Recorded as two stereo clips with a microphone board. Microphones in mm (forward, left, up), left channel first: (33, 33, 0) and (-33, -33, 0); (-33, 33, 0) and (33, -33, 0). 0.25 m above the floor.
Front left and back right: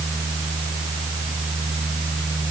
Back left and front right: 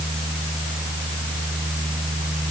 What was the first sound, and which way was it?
Only background noise.